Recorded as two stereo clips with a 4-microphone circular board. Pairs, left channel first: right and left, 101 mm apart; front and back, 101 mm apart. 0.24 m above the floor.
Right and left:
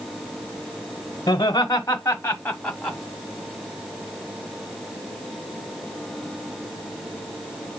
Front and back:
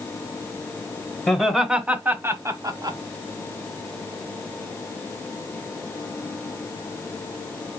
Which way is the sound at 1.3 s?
80° right.